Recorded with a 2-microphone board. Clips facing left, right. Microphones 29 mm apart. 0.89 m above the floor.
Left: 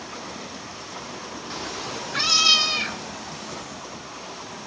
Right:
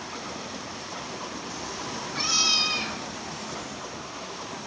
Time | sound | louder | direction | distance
1.5 | a cat meowing | left 3 dB | 55° left (ahead or behind) | 0.6 m